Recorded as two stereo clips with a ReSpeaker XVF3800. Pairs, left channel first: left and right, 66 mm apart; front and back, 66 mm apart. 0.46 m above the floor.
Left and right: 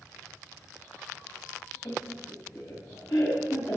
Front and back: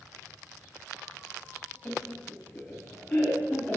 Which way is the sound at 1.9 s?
75° left.